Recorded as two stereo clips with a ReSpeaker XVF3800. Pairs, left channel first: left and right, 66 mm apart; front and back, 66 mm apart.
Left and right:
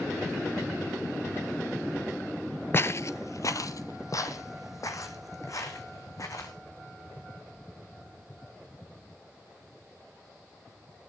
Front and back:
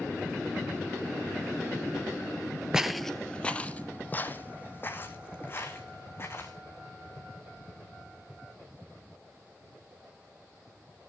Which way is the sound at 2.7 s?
105° left.